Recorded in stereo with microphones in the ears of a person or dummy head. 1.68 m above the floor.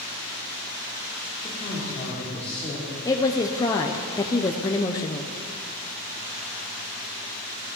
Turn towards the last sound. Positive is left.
turn(degrees=15)  # may be behind; listen again after turning